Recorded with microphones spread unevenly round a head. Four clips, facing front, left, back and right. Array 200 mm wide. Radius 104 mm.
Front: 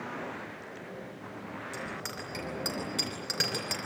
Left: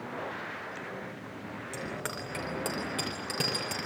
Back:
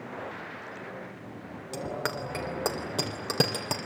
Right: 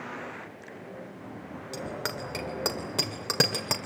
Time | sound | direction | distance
1.7 | a bicycle bell | 170° right | 2.5 m